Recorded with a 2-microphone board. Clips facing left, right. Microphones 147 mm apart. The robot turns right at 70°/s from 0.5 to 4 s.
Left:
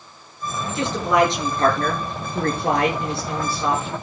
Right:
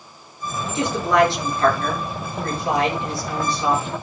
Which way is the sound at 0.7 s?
25° right.